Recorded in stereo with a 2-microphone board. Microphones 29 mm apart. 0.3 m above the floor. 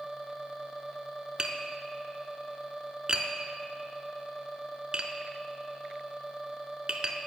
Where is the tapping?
30° right (ahead or behind), 0.6 m.